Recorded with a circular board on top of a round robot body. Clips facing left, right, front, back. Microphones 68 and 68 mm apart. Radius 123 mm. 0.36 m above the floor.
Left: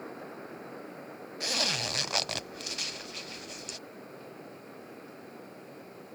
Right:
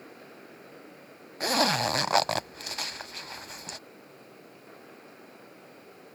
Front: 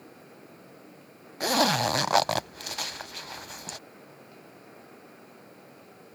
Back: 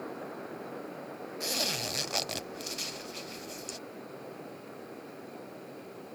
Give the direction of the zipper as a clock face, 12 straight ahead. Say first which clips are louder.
Right 9 dB, front 13 dB; 1 o'clock.